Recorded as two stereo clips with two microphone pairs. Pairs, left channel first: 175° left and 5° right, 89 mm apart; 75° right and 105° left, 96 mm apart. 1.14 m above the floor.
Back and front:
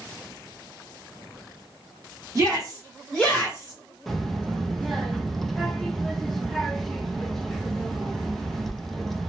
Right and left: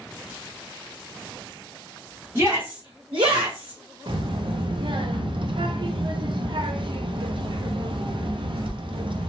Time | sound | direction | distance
2.4 | a shout | 55° left | 1.2 m
4.1 | a child speaking | 80° left | 0.5 m